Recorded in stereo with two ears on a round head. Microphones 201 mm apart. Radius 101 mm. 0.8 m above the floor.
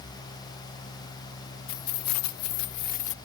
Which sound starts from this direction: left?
Keys jangling, at 1.7 s.